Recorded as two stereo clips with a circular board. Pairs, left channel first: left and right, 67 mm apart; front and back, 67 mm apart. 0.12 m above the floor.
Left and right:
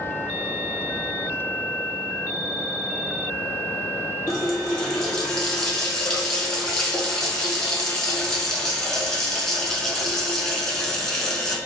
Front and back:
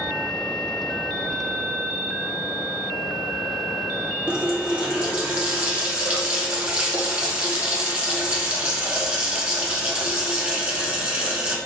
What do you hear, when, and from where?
4.3 s a running tap: 155° left, 0.7 m